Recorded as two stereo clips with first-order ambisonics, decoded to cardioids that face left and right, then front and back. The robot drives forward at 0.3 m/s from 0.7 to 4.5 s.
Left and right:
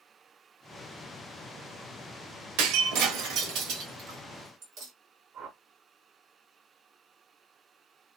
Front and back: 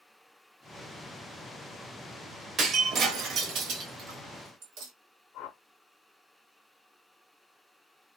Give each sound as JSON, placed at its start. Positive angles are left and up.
{"t": 2.6, "sound": "breaking glass", "azimuth_deg": -115, "distance_m": 0.8}
{"t": 5.3, "sound": "a whoosh", "azimuth_deg": -40, "distance_m": 0.7}